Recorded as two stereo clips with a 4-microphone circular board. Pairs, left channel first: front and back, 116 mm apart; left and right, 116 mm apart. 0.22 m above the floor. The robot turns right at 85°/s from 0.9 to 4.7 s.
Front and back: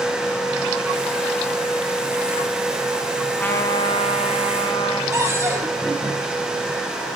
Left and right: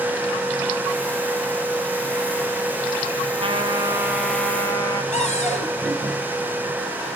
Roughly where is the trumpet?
Right.